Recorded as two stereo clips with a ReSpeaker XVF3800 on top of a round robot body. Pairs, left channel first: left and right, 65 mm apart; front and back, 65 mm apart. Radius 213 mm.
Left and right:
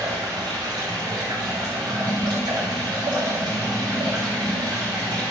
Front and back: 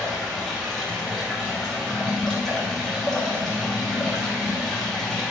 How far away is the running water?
About 3 m.